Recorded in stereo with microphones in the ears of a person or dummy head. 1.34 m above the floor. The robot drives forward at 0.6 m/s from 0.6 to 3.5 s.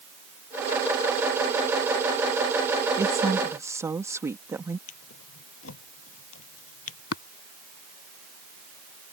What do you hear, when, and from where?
3.0 s a woman speaking: 20° right (ahead or behind)
4.9 s a drawer: 80° left
7.1 s tapping: 85° left